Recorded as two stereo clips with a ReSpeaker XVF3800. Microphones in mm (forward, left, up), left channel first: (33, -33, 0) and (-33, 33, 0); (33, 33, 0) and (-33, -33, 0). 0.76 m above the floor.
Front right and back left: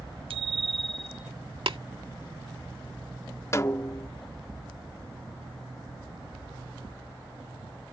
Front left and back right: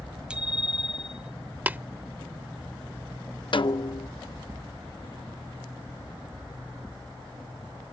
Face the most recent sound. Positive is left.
turn(degrees=15)